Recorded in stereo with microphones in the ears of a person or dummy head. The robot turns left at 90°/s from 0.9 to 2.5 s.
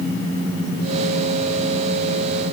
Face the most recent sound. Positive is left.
No sound to turn to.